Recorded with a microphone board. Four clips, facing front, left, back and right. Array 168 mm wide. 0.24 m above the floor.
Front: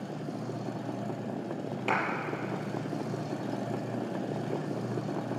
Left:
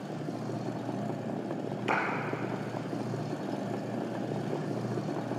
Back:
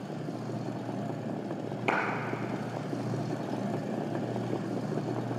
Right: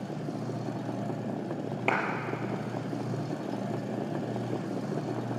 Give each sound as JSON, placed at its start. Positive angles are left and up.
{"t": 1.9, "sound": "a clap", "azimuth_deg": -95, "distance_m": 5.0}